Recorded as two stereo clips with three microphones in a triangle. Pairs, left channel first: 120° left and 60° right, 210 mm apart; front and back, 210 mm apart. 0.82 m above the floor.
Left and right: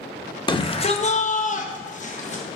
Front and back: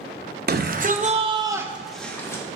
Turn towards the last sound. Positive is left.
turn(degrees=75)